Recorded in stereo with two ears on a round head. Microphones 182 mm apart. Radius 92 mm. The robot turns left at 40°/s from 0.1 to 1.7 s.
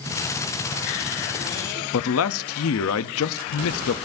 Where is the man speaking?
80° left, 0.6 m.